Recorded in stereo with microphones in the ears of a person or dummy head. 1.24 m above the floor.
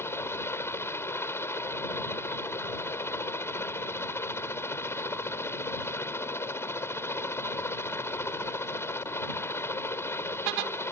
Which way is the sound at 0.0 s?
15° left (ahead or behind).